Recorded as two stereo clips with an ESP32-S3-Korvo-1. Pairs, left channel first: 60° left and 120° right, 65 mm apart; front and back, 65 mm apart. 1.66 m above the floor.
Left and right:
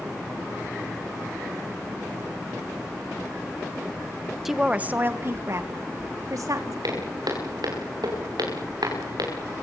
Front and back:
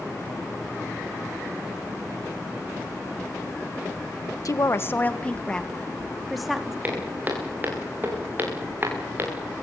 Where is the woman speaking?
35° right, 1.2 m; by 6.7 s 95° right, 3.5 m.